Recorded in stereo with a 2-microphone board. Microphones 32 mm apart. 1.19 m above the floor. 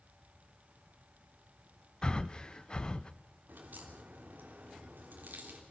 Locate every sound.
2.0 s breathing: 30° left (ahead or behind), 0.6 m
3.5 s a crack: 85° right, 3 m